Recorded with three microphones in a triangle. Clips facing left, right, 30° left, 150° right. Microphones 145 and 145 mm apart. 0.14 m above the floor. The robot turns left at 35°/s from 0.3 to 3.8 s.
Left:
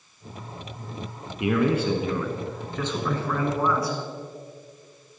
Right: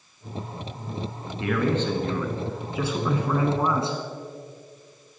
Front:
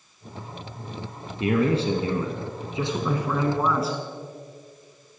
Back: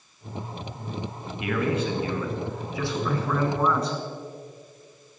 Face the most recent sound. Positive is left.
turn(degrees=-50)